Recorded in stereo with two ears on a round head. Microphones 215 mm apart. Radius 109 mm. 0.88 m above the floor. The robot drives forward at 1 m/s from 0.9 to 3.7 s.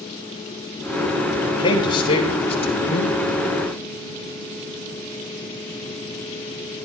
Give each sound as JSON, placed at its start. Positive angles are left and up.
{"t": 1.5, "sound": "a man speaking", "side_deg": 20, "distance_m": 5.0}